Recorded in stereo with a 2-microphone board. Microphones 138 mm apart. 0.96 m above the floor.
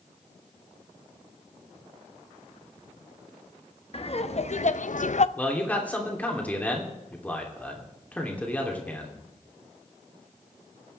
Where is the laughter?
45° left (ahead or behind), 1.1 m; by 5.3 s 55° left (ahead or behind), 0.5 m.